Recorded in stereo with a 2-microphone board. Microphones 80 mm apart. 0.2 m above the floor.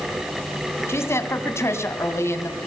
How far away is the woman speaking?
About 1.7 m.